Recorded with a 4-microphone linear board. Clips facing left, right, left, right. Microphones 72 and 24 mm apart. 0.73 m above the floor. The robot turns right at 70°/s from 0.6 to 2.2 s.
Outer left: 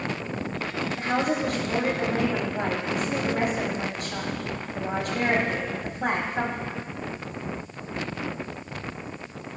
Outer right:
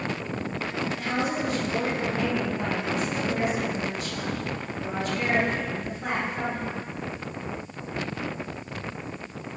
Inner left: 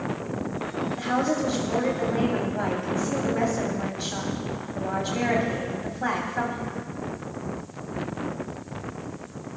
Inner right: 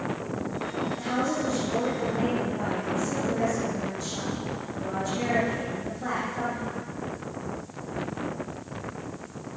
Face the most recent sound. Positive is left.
turn(degrees=120)